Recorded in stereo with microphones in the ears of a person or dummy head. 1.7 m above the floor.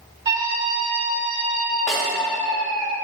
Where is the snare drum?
5° left (ahead or behind), 2.5 m.